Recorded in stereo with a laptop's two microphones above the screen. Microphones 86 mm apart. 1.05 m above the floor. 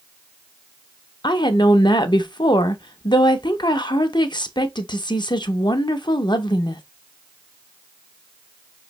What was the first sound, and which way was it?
A woman speaking, 55° left (ahead or behind).